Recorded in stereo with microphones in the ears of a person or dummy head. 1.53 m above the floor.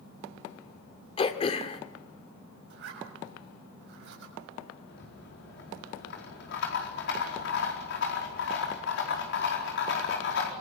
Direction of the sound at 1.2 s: 35° left (ahead or behind).